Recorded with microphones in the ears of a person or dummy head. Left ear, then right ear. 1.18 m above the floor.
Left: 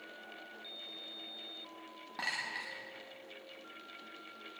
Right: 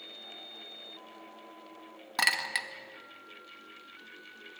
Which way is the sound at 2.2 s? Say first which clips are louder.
Right 9 dB; 60° right (ahead or behind).